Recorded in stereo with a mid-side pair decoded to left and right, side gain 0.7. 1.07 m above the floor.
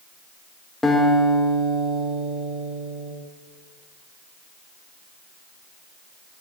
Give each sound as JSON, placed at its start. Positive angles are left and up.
{"t": 0.8, "sound": "a guitar", "azimuth_deg": 15, "distance_m": 1.1}